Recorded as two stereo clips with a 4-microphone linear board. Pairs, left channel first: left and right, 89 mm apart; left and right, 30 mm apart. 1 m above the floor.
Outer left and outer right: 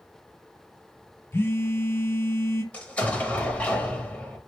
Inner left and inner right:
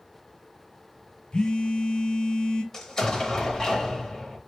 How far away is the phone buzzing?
About 0.5 m.